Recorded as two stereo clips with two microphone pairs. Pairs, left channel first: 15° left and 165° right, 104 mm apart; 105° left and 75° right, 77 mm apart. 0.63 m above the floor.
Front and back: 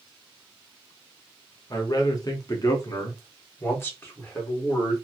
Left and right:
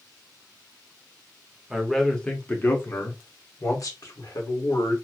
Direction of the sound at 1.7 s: 10° left.